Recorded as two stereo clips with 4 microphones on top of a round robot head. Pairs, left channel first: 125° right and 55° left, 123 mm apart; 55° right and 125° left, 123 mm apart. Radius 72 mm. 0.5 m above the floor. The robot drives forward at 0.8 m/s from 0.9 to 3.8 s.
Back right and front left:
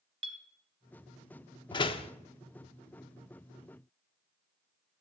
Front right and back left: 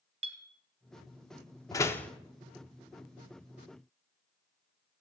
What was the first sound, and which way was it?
A clink, 95° left.